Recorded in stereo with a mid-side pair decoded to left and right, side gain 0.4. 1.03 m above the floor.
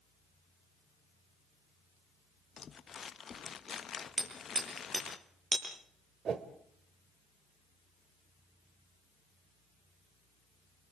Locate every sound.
2.6 s crumpling: 50° left, 1.1 m
4.2 s hammering: 35° right, 9.5 m
6.2 s a whoosh: 60° right, 1.7 m